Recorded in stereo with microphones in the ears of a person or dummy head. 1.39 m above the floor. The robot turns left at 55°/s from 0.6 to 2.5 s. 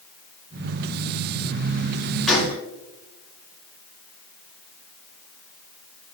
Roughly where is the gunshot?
Centre.